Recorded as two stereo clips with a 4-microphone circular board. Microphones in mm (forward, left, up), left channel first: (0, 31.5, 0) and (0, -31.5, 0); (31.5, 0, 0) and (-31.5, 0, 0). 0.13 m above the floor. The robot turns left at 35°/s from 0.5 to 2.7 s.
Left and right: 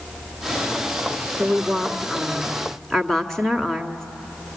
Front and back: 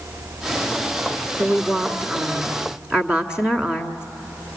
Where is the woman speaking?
155° right, 1.5 m; by 4.0 s 160° left, 1.5 m.